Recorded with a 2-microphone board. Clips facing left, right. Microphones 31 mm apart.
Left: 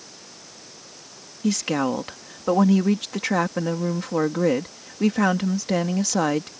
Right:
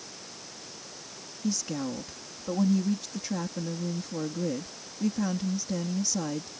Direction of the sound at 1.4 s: 85° left.